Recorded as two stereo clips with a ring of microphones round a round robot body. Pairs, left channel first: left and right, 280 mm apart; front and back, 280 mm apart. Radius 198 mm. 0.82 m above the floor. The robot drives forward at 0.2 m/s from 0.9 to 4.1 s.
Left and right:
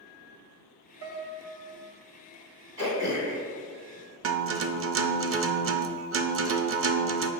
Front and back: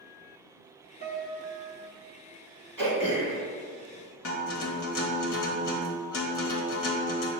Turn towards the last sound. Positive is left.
turn(degrees=-45)